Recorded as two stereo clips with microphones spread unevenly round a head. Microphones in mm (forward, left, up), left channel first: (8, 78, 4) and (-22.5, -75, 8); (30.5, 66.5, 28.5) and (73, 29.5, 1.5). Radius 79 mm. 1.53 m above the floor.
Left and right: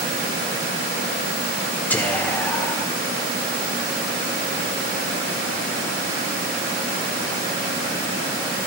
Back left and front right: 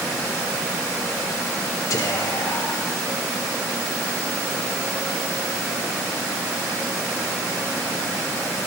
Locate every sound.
1.9 s whispering: 160° left, 0.7 m